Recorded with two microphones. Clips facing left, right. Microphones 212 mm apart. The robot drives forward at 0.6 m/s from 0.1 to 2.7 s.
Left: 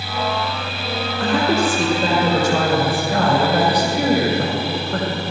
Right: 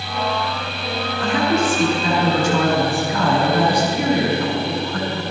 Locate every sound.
1.2 s a woman speaking: 70° left (ahead or behind), 7 m; by 5.2 s 75° left (ahead or behind), 6.5 m